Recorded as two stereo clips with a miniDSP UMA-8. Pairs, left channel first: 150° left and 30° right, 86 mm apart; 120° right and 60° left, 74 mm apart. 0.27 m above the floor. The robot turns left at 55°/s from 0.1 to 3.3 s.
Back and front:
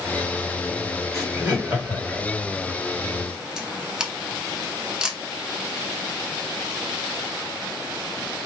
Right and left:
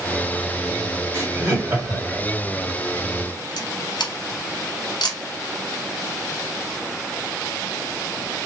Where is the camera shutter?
110° right, 0.7 m.